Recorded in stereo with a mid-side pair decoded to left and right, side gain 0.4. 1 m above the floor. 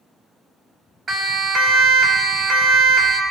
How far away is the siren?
About 2.5 m.